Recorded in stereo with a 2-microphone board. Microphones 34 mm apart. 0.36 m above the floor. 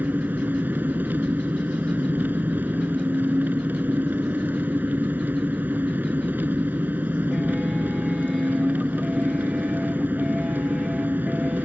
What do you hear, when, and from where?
0.0 s an engine running: 70° right (ahead or behind)